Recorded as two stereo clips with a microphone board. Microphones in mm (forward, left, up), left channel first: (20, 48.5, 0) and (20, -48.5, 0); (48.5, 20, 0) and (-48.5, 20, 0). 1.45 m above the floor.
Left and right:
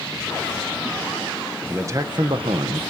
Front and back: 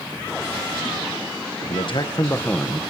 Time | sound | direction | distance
1.7 | a man speaking | 25° right | 1.7 m